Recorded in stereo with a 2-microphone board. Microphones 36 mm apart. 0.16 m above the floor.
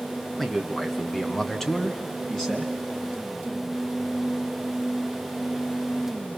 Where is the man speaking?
5° left (ahead or behind), 2.5 m; by 2.7 s 10° left (ahead or behind), 2 m.